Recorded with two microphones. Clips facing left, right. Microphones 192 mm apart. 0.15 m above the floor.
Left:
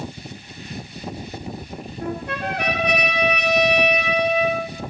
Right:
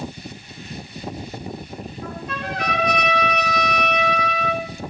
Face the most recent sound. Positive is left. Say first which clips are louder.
# left 6 dB
turn(degrees=65)  # may be behind; listen again after turning